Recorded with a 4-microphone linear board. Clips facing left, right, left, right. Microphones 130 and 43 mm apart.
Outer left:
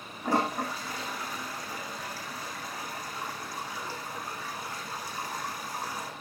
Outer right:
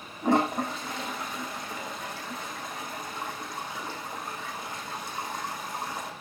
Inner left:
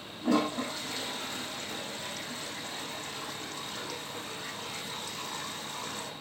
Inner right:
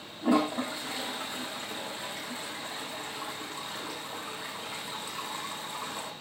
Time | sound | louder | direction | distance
0.2 | a toilet flushing | outer right 4 dB, inner right 2 dB | 20° right (ahead or behind) | 6.5 m